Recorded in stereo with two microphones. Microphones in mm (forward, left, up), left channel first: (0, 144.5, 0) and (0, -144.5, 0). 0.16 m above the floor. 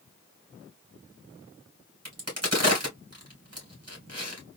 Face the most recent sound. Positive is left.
turn(degrees=-60)  # may be behind; listen again after turning